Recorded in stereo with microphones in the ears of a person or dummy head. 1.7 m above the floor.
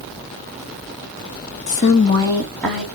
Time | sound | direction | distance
1.7 | a woman speaking | 40° left (ahead or behind) | 1.0 m